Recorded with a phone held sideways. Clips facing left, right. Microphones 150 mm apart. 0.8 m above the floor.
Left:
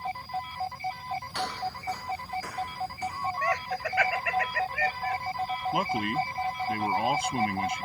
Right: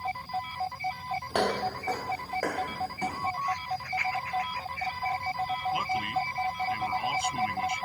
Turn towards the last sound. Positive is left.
turn(degrees=55)  # may be behind; listen again after turning